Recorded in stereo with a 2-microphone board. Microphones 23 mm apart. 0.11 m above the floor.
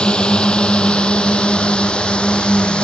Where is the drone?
40° left (ahead or behind); by 2.8 s 45° left (ahead or behind).